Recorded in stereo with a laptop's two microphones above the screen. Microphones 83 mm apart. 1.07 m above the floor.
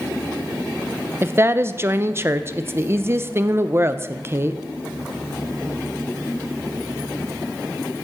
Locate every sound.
1.2 s a woman speaking: 30° right (ahead or behind), 0.7 m